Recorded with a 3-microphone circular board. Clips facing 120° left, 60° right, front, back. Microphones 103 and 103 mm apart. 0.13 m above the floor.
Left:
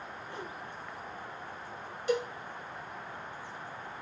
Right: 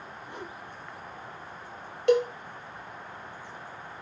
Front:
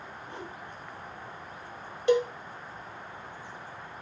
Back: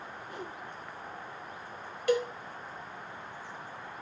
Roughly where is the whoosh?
Ahead.